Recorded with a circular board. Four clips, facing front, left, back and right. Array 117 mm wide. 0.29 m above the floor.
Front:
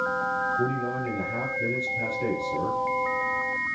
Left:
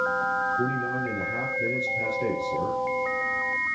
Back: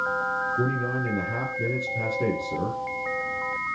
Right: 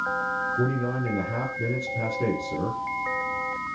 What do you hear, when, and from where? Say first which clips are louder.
0.6 s a man speaking: right 1 dB, even; 140° right, 8.5 m